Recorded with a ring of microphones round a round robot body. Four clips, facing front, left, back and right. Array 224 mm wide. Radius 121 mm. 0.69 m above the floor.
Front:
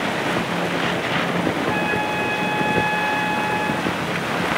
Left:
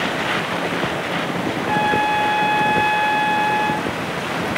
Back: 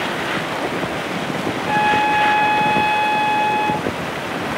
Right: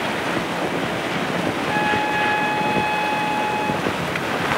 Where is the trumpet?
145° left, 7.5 m.